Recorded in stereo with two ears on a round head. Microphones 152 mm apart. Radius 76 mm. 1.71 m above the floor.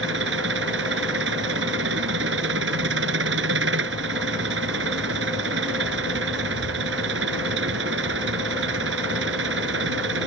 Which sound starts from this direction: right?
An engine running, at 0.0 s.